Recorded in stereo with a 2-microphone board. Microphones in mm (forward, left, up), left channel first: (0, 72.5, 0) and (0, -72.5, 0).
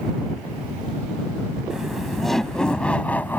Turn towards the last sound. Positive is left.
turn(degrees=15)  # may be behind; listen again after turning